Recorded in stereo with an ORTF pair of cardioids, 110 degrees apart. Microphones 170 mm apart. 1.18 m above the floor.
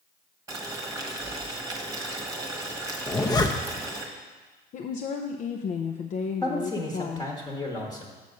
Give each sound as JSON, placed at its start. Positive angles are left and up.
{"t": 0.5, "sound": "boiling", "azimuth_deg": -20, "distance_m": 1.2}
{"t": 3.1, "sound": "a zipper", "azimuth_deg": 25, "distance_m": 0.7}
{"t": 4.7, "sound": "a woman speaking", "azimuth_deg": 50, "distance_m": 0.6}
{"t": 6.4, "sound": "a man speaking", "azimuth_deg": 20, "distance_m": 1.2}